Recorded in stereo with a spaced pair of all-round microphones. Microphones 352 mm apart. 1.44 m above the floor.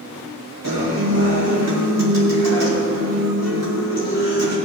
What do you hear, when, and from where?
0.6 s a guitar: 60° right (ahead or behind), 5 m